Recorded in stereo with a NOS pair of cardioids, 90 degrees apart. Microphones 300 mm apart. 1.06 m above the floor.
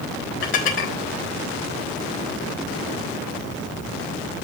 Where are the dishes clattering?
40° left, 4 m.